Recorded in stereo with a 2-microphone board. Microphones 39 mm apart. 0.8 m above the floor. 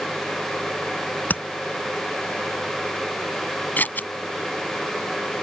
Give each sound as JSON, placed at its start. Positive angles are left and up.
{"t": 1.3, "sound": "tapping", "side_deg": 50}
{"t": 3.8, "sound": "scissors", "side_deg": 50}